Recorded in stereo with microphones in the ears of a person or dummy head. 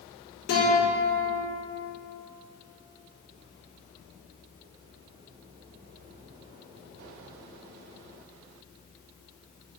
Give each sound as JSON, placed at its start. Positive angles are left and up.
{"t": 0.5, "sound": "a guitar", "side_deg": 60, "distance_m": 1.7}